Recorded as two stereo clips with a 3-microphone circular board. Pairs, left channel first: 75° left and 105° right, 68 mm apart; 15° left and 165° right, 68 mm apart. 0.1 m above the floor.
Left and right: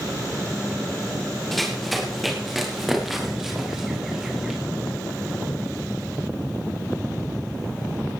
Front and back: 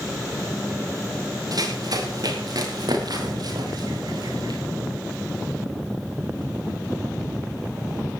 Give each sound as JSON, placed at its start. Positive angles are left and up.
{"t": 1.5, "sound": "running footsteps", "azimuth_deg": 165, "distance_m": 5.5}